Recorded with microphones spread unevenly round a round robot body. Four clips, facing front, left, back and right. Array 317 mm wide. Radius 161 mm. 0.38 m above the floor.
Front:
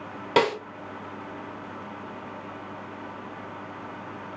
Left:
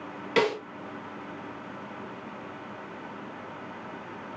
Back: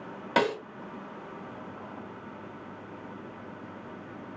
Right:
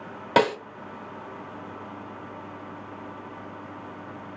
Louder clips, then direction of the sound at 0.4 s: Right 4 dB, front 4 dB; 75° right.